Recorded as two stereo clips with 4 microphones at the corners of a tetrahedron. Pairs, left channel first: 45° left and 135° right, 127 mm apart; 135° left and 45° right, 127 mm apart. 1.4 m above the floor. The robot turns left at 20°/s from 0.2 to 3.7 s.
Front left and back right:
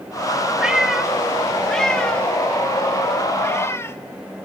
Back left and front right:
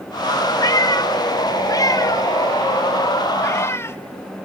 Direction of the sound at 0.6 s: 150° left.